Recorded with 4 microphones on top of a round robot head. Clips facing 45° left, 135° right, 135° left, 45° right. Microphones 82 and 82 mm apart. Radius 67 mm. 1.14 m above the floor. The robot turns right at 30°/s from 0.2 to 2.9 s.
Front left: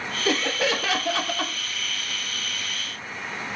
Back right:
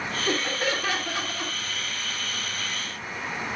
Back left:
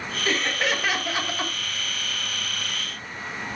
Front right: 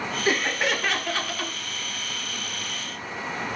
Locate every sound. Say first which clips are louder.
0.2 s laughter: front left 4 dB, even; 35° left, 1.1 m; by 1.5 s 75° left, 1.1 m